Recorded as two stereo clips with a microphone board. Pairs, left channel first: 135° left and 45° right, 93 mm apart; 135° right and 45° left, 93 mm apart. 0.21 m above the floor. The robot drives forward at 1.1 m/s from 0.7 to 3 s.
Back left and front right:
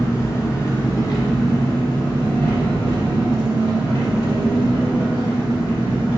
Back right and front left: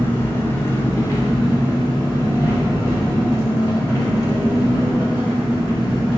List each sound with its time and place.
0.0 s an engine running: 175° left, 1.1 m; by 6.2 s straight behind, 3.5 m